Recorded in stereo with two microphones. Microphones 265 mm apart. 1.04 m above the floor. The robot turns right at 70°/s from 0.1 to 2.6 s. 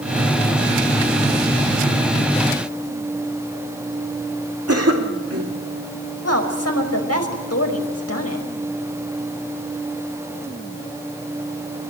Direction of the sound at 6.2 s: 65° left (ahead or behind).